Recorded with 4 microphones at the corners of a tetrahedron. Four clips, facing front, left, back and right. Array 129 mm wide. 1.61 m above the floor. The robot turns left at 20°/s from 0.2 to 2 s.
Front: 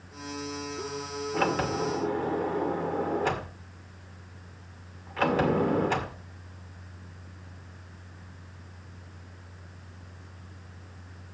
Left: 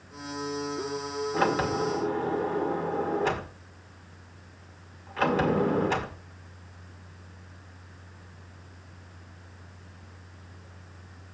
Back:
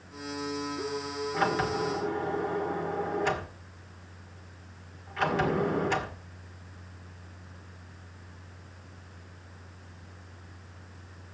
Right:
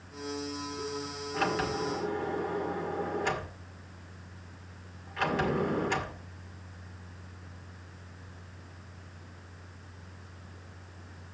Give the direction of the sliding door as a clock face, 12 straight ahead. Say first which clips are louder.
Left 4 dB, front 1 dB; 10 o'clock.